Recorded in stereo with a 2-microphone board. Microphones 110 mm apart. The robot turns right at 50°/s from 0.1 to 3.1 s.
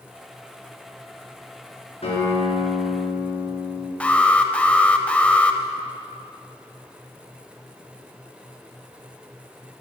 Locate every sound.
2.0 s a guitar: 80° left, 4 m; by 3.9 s 130° left, 4 m
4.0 s an alarm: 10° left (ahead or behind), 0.6 m